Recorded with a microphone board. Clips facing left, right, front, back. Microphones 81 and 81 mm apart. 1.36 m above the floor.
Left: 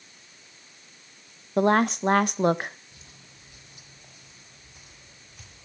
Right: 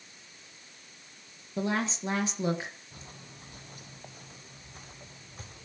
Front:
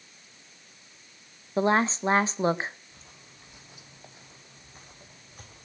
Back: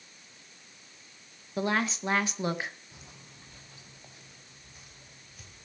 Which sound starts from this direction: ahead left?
A woman speaking, at 1.6 s.